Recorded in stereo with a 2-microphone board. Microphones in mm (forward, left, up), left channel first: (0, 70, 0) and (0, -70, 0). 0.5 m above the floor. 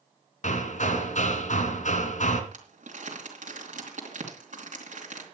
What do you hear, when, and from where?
0.4 s hammering: 60° left (ahead or behind), 2 m
2.5 s crumpling: 70° right (ahead or behind), 3.5 m